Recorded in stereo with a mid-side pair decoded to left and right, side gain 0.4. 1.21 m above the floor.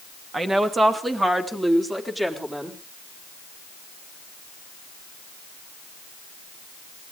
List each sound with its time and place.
0.3 s a woman speaking: 35° right, 2.5 m; by 2.8 s 15° right, 4 m